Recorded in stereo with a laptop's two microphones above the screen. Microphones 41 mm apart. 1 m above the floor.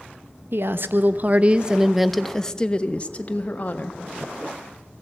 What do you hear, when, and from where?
0.5 s a woman speaking: 65° right (ahead or behind), 0.9 m; by 4.0 s 40° left (ahead or behind), 1.5 m